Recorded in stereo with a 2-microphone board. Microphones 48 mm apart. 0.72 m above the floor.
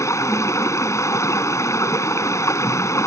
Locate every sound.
0.0 s running water: 85° left